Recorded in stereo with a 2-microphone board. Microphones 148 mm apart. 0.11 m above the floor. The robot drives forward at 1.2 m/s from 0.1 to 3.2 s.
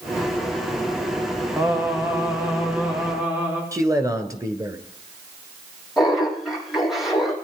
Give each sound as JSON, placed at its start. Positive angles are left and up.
{"t": 1.6, "sound": "singing", "side_deg": -20, "distance_m": 1.9}
{"t": 3.7, "sound": "a man speaking", "side_deg": -20, "distance_m": 1.2}
{"t": 6.0, "sound": "laughter", "side_deg": 0, "distance_m": 4.5}